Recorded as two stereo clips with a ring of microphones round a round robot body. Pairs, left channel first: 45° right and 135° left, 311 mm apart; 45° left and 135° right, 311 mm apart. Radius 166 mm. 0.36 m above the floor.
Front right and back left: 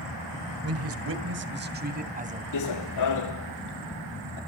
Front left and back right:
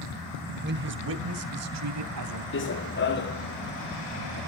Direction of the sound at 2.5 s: 10° right.